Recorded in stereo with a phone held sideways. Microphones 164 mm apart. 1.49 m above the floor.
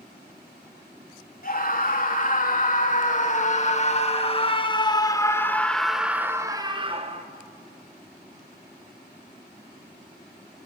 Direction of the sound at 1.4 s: 55° left (ahead or behind).